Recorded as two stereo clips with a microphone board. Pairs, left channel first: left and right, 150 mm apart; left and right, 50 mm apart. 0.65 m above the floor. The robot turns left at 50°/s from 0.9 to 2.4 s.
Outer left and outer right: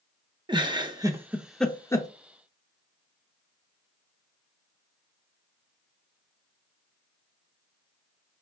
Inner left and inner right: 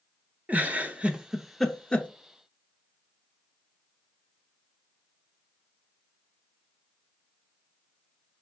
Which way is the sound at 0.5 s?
30° right (ahead or behind).